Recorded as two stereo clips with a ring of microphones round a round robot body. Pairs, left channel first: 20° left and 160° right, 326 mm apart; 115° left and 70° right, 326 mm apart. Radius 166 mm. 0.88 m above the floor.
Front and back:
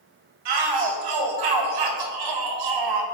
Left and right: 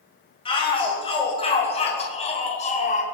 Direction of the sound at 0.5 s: 170° right.